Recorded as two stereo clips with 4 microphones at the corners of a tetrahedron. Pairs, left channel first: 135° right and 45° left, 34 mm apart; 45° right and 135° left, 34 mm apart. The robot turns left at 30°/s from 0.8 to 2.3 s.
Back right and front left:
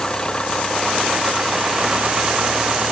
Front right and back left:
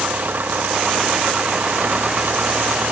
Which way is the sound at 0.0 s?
160° left.